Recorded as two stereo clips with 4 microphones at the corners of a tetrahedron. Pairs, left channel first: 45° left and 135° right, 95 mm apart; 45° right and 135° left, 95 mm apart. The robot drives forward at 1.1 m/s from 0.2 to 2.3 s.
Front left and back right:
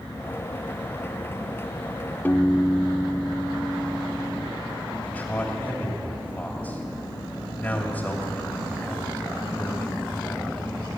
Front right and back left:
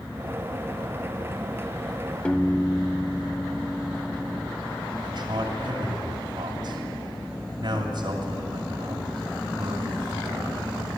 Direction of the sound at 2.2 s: 10° left.